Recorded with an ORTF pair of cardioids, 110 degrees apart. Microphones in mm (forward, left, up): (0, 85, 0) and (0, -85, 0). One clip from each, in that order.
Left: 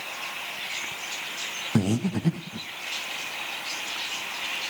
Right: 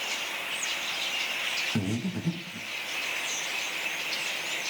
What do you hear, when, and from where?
1.8 s breathing: 35° left, 0.9 m